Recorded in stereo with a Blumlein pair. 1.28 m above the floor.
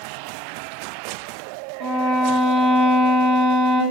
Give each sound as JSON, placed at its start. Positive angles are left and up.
{"t": 1.8, "sound": "a violin", "azimuth_deg": -5, "distance_m": 0.8}